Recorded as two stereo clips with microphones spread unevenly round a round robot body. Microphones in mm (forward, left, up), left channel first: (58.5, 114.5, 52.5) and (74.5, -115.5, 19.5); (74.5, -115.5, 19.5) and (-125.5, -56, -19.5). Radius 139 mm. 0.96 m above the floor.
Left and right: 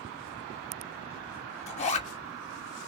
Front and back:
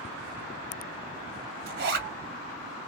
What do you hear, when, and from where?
1.7 s a zipper: 160° left, 1.3 m